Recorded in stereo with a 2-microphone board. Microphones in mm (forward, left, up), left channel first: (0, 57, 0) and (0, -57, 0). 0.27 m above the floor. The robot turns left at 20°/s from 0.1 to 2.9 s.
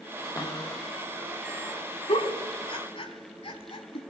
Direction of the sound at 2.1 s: 65° left (ahead or behind).